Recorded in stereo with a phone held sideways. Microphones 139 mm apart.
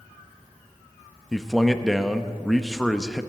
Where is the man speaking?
Centre (ahead or behind), 0.8 m.